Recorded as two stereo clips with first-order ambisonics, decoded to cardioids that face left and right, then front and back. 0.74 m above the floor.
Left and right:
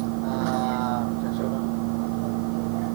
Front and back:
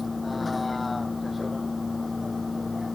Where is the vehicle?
80° right.